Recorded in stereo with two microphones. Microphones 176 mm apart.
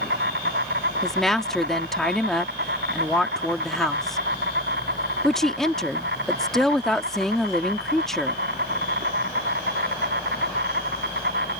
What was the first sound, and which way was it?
An insect, 80° right.